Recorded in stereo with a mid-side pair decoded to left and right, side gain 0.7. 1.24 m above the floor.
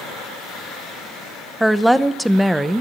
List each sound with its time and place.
1.6 s a woman speaking: straight ahead, 0.7 m